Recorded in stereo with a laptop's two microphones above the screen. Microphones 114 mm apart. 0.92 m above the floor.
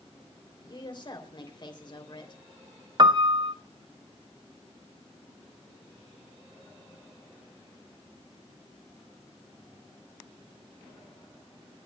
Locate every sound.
0.7 s a woman speaking: 45° left (ahead or behind), 3 m
3.0 s a piano: 40° right (ahead or behind), 0.7 m